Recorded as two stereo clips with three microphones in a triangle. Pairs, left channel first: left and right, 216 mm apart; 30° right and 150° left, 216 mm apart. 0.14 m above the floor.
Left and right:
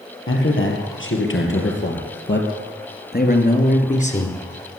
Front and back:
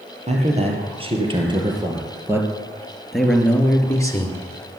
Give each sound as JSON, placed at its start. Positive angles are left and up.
{"t": 0.3, "sound": "a man speaking", "azimuth_deg": 95, "distance_m": 4.0}